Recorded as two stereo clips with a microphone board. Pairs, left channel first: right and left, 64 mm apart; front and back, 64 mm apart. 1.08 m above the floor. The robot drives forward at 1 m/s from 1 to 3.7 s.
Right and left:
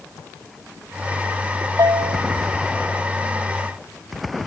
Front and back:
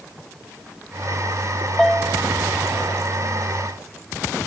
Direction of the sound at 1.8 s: 80° left.